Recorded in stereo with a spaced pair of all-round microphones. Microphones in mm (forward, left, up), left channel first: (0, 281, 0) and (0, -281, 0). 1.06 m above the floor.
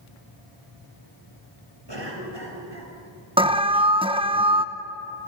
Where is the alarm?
10° right (ahead or behind), 0.9 m.